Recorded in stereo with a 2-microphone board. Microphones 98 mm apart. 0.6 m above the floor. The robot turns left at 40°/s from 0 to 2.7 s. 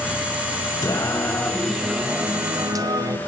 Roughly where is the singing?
Ahead left.